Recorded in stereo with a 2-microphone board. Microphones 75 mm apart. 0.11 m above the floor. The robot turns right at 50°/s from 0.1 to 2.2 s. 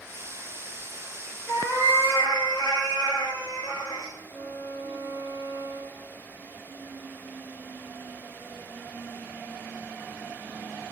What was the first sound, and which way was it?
A cat meowing, 35° left.